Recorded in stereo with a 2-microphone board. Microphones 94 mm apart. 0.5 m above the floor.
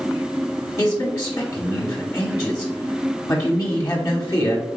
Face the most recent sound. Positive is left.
turn(degrees=30)  # may be behind; listen again after turning